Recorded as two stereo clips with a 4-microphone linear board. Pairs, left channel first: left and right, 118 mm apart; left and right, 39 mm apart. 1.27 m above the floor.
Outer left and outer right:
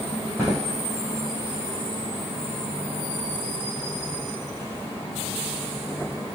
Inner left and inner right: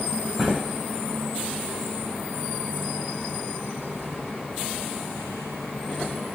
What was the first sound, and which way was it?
Footsteps, 15° left (ahead or behind).